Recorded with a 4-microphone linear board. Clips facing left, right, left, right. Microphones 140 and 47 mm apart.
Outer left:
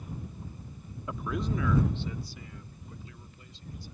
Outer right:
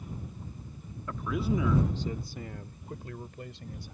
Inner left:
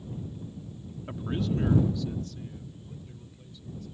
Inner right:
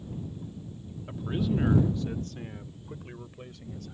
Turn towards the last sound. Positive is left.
turn(degrees=-70)  # may be behind; listen again after turning